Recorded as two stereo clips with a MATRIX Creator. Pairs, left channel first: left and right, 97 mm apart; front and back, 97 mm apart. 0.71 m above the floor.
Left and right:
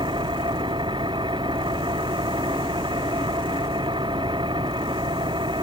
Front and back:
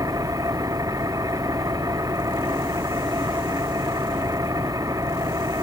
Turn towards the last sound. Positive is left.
turn(degrees=-125)